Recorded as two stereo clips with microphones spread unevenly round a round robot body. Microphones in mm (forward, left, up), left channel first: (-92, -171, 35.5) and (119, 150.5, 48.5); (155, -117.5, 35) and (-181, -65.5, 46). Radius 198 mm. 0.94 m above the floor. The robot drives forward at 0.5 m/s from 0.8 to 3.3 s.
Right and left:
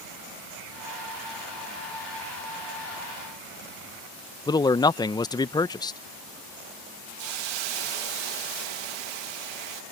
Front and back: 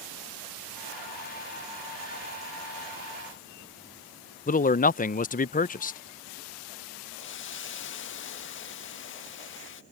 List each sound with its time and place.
4.5 s a man speaking: 55° right
7.2 s a hiss: 50° left